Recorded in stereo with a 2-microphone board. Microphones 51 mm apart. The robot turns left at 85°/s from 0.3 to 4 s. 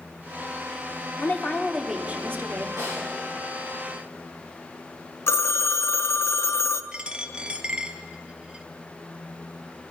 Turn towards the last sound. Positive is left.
turn(degrees=-20)  # may be behind; listen again after turning